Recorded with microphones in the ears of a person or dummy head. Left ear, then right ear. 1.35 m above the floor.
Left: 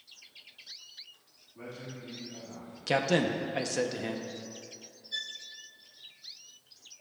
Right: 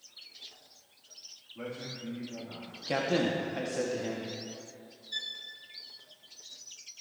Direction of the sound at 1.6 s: 15° right (ahead or behind).